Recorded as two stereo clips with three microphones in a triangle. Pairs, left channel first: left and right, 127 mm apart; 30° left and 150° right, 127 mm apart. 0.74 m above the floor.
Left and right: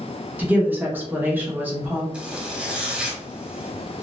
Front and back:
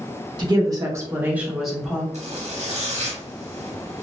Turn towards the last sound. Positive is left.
turn(degrees=-170)